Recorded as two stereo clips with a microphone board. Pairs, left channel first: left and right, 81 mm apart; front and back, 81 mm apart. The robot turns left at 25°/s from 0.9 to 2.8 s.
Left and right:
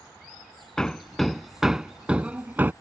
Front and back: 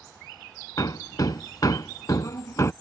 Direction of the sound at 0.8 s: 10° left.